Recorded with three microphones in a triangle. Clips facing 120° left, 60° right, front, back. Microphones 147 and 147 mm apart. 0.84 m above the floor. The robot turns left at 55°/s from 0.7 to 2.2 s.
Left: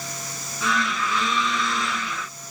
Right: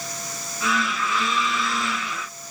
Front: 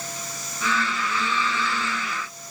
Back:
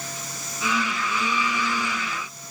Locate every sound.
Only background noise.